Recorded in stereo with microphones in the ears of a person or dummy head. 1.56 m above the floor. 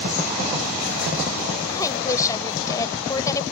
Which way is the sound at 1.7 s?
20° left (ahead or behind).